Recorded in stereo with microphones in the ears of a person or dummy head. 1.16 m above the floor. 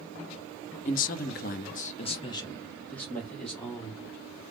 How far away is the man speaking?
About 0.7 m.